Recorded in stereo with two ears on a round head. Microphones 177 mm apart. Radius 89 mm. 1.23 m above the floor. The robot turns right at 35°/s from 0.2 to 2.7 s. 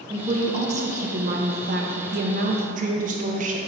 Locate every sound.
0.1 s a woman speaking: 145° right, 0.8 m; by 3.6 s 60° right, 0.8 m